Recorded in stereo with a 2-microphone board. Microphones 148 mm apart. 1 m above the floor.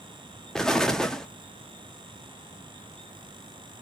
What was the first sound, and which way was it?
An explosion, 5° left (ahead or behind).